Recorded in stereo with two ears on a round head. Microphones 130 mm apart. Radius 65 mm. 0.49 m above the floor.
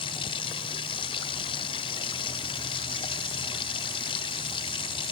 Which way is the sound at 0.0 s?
35° left (ahead or behind).